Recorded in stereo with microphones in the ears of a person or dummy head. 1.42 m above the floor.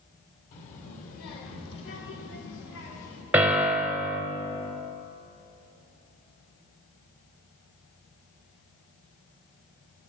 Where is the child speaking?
35° left (ahead or behind), 2.5 m; by 3.2 s 75° left (ahead or behind), 2.5 m.